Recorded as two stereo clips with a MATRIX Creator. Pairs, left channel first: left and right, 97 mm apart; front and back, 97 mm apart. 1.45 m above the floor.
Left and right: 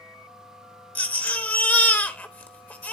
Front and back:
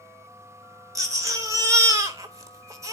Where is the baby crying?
150° left, 0.9 m.